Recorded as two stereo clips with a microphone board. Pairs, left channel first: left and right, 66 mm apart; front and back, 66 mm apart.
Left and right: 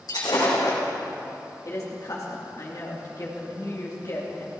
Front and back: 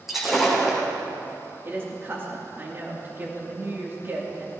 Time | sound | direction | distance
0.1 | breaking glass | 90° left | 4 m
1.6 | a woman speaking | 125° left | 2.5 m